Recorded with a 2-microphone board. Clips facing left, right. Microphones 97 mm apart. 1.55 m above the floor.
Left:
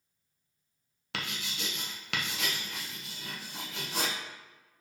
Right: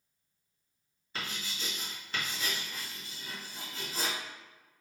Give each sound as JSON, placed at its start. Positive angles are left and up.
{"t": 1.1, "sound": "writing", "side_deg": 85, "distance_m": 0.8}